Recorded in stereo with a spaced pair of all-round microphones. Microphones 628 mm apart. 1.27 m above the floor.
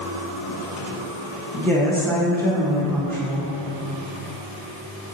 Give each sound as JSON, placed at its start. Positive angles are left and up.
{"t": 1.5, "sound": "a woman speaking", "side_deg": 5, "distance_m": 1.4}